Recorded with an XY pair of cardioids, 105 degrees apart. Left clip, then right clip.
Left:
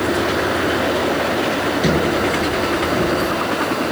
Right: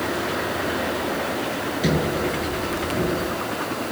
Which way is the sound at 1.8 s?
20° left.